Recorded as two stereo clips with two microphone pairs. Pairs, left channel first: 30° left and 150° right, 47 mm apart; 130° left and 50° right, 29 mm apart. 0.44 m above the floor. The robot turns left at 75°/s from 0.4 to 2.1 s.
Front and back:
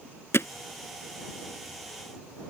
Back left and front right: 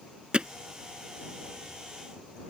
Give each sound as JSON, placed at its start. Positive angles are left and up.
{"t": 0.3, "sound": "hammering", "azimuth_deg": 5}